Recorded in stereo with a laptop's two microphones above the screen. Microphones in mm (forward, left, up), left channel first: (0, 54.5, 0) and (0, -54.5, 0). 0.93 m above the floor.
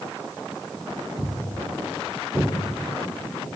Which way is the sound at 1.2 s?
40° right (ahead or behind).